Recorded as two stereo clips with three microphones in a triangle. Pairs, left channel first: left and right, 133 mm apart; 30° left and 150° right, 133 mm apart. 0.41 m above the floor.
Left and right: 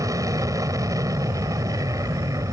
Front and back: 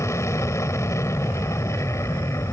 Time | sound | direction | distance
0.0 | an aircraft | 35° right | ?